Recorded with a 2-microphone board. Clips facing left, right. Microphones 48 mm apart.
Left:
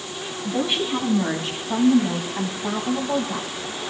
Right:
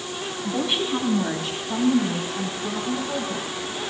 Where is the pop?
No pop in this recording.